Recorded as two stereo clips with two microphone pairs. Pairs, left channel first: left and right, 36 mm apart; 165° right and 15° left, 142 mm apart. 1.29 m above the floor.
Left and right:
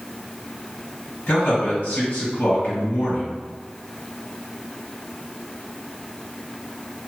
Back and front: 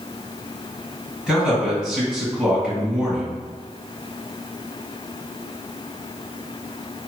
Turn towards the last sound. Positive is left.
turn(degrees=105)